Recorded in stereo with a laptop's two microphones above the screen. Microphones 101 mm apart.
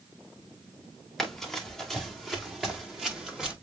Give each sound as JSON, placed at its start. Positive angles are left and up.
{"t": 1.2, "sound": "running footsteps", "side_deg": 5, "distance_m": 6.5}